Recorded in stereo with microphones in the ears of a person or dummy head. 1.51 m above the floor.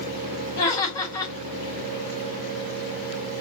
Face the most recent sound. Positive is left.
turn(degrees=20)  # may be behind; listen again after turning